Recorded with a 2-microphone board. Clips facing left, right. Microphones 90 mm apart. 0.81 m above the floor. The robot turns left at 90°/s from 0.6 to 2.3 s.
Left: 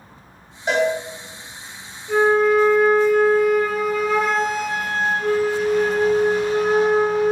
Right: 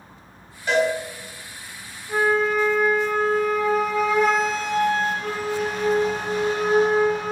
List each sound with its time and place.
0.7 s a cowbell: 25° left (ahead or behind), 1.4 m; by 0.9 s 45° left (ahead or behind), 1.4 m
2.1 s a flute: 60° left (ahead or behind), 1.8 m; by 7.3 s 45° left (ahead or behind), 1.8 m